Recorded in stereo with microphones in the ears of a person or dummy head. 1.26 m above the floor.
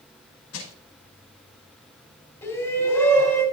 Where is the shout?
15° left (ahead or behind), 5.5 m.